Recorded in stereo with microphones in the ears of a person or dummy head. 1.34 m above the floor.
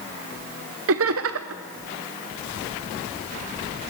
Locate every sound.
0.9 s laughter: 70° right (ahead or behind), 0.8 m